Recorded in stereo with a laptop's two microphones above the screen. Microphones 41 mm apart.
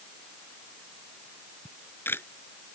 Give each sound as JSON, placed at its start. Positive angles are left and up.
{"t": 1.6, "sound": "a camera shutter", "side_deg": 60}